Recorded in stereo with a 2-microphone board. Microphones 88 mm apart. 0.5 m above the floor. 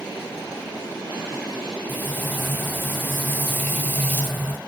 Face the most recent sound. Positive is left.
turn(degrees=20)  # may be behind; listen again after turning